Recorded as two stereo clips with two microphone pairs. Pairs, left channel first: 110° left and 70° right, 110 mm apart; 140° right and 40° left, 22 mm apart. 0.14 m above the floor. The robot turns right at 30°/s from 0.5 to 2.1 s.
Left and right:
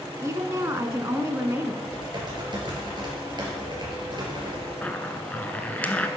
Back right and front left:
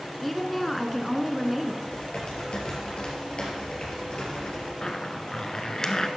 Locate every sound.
0.2 s a woman speaking: 70° right, 1.2 m; by 1.7 s 30° right, 1.2 m
1.8 s typing on a keyboard: 120° right, 3 m; by 4.7 s 110° right, 3 m
4.8 s a zipper: straight behind, 0.7 m